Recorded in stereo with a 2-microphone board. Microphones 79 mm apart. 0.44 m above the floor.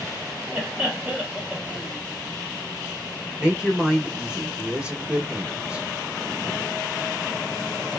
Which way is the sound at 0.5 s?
10° right (ahead or behind).